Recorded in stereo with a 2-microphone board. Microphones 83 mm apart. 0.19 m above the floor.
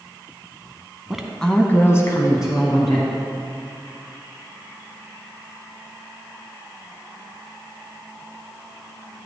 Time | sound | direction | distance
1.1 | a woman speaking | 5° right (ahead or behind) | 1.4 m